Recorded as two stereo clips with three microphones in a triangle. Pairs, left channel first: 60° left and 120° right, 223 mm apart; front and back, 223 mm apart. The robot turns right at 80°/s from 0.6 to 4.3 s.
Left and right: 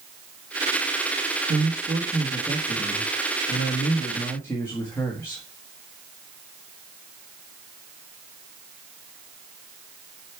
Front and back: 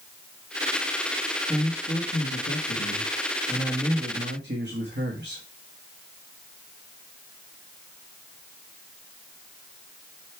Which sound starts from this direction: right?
A man speaking, at 1.5 s.